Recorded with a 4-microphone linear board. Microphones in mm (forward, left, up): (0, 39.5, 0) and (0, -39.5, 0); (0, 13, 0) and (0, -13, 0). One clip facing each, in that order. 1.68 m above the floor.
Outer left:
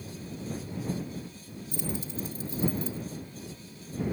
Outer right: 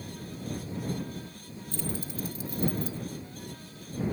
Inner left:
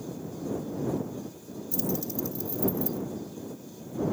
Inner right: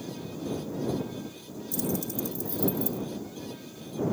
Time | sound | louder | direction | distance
1.7 | keys jangling | even, even | 15° left (ahead or behind) | ?